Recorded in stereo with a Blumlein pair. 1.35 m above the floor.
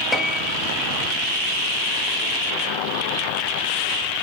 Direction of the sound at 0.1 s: 5° left.